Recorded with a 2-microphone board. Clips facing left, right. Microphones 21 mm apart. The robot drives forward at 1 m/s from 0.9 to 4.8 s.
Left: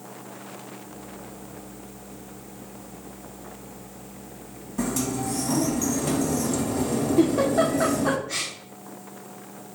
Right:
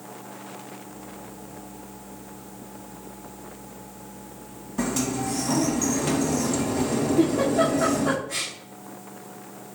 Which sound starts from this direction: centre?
A sliding door, at 4.8 s.